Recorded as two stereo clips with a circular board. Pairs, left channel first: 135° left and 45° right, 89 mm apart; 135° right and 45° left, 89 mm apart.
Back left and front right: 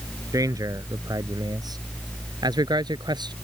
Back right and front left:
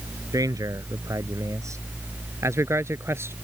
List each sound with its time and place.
0.3 s a man speaking: straight ahead; by 3.3 s 15° right